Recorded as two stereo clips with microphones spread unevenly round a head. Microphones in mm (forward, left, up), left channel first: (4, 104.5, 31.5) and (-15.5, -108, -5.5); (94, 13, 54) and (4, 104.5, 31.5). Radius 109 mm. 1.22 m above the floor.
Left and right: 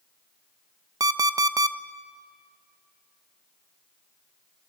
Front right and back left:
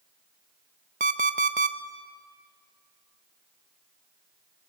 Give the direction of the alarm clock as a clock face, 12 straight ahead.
6 o'clock.